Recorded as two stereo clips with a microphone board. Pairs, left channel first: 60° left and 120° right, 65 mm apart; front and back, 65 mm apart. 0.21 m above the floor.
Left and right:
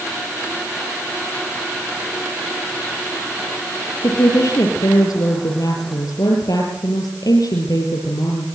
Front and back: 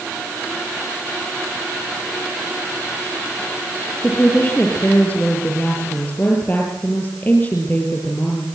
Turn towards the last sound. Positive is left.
turn(degrees=55)